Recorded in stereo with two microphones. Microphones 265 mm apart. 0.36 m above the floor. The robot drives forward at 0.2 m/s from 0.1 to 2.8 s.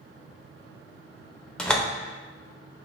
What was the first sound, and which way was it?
A door slam, 5° left (ahead or behind).